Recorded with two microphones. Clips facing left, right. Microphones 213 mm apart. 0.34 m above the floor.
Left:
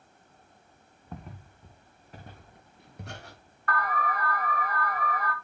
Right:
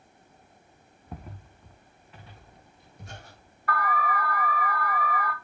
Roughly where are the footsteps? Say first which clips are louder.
Even; centre.